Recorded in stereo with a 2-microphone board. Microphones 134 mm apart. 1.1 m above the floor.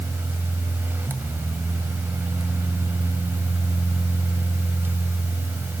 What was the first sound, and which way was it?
Only background noise.